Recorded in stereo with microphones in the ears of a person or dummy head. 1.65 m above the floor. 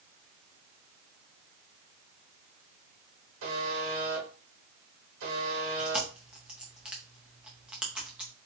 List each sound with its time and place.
3.4 s a buzzer: 85° right, 1.5 m
5.8 s chewing: 5° right (ahead or behind), 0.7 m